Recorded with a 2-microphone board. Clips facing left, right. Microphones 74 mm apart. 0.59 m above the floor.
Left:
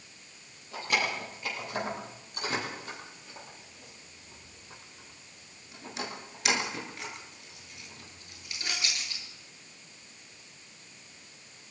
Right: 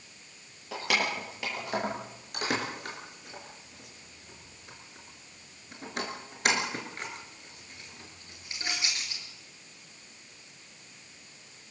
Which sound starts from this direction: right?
Keys jangling, at 0.7 s.